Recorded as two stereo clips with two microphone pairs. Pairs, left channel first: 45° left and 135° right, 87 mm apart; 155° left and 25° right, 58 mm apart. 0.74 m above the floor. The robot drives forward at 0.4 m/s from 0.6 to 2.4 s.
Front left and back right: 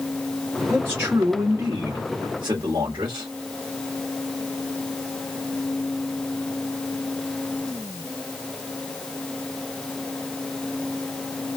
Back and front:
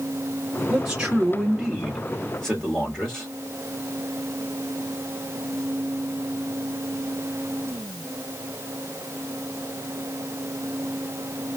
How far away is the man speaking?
About 1.0 m.